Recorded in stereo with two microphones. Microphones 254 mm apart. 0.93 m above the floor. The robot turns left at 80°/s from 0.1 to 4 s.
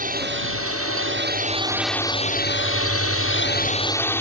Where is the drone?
40° right; by 4.2 s 10° left.